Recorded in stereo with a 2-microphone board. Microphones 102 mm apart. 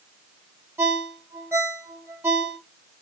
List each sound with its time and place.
0.8 s a ringtone: 25° right (ahead or behind), 0.8 m